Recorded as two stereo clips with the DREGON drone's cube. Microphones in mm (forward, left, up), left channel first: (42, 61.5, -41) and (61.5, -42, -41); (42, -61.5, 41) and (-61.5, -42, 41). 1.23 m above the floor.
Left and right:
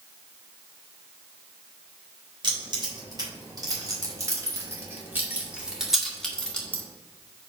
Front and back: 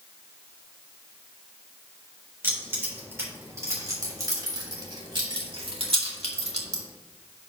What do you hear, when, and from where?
2.4 s keys jangling: 120° right, 3.5 m; by 6.8 s 175° left, 2.0 m